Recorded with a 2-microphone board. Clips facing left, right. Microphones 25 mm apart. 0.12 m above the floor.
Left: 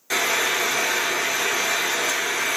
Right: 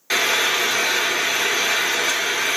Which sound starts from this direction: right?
Frying, at 0.1 s.